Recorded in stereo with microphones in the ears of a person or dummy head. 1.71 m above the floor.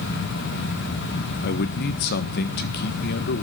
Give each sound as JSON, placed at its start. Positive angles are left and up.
{"t": 1.4, "sound": "a man speaking", "side_deg": 50, "distance_m": 1.3}